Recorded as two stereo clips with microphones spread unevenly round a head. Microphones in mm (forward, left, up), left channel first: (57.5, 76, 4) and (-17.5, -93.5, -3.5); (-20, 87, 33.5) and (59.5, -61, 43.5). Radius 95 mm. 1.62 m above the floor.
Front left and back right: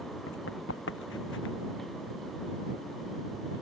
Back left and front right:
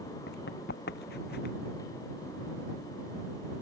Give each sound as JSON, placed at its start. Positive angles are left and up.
{"t": 0.3, "sound": "running footsteps", "azimuth_deg": 95}